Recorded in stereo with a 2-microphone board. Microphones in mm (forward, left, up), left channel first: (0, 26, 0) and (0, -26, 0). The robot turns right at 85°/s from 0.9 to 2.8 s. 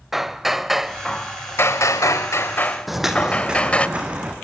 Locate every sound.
0.1 s hammering: 5° right, 0.8 m; by 3.9 s 160° left, 0.8 m
2.9 s footsteps: centre (ahead or behind), 1.8 m; by 4.3 s 25° right (ahead or behind), 3.5 m